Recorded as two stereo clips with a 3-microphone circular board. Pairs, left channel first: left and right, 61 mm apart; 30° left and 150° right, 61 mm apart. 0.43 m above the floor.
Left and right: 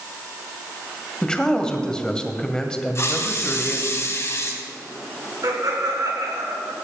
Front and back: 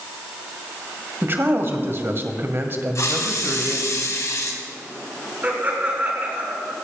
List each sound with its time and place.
1.2 s a man speaking: 165° left, 1.8 m
3.0 s a hiss: 55° left, 2 m
5.4 s laughter: 90° right, 4.5 m